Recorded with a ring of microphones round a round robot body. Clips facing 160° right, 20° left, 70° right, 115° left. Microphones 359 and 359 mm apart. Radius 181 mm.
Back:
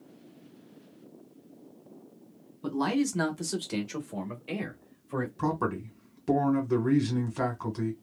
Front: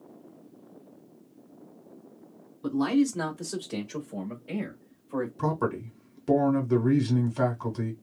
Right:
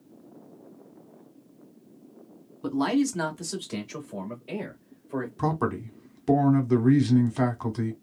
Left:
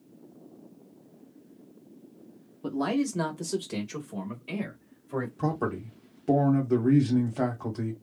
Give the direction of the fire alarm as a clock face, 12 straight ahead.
No fire alarm in this recording.